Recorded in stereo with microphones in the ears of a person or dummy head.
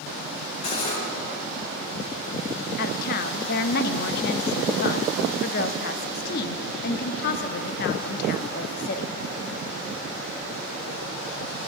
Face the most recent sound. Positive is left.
turn(degrees=55)  # may be behind; listen again after turning